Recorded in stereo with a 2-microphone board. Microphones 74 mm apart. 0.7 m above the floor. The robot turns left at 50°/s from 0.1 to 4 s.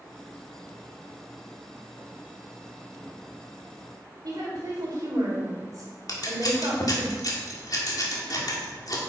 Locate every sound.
4.2 s a woman speaking: 50° right (ahead or behind), 3 m
6.1 s scissors: 55° left (ahead or behind), 2 m